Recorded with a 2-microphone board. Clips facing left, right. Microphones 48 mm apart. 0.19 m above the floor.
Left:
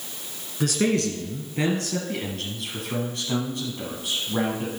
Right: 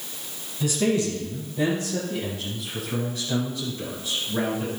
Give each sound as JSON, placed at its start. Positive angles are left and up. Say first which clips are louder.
{"t": 0.6, "sound": "a man speaking", "louder": "even", "side_deg": 60, "distance_m": 2.5}